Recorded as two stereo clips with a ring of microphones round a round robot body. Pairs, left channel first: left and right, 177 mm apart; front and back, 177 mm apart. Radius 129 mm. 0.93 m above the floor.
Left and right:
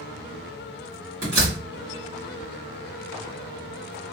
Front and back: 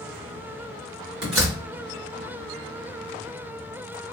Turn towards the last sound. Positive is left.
turn(degrees=-150)